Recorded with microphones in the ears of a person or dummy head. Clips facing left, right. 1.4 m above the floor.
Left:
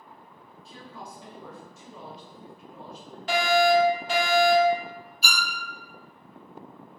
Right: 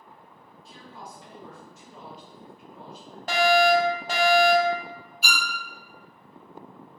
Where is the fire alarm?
25° right (ahead or behind), 0.7 m.